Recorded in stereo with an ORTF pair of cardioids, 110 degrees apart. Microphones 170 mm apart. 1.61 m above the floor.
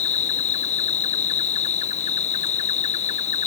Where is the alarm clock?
No alarm clock in this recording.